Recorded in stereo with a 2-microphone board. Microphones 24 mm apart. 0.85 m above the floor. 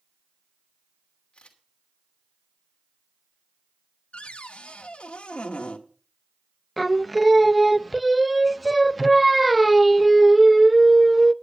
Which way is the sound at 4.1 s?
50° left (ahead or behind).